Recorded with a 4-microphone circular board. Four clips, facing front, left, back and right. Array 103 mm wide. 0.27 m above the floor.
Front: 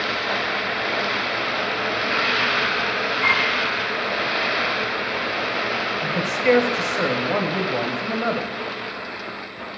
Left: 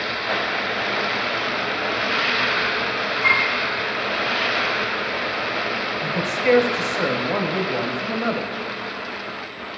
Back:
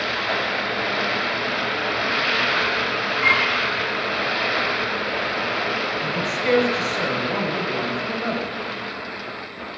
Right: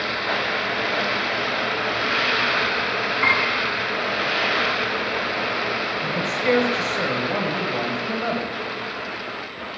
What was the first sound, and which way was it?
A piano, 95° right.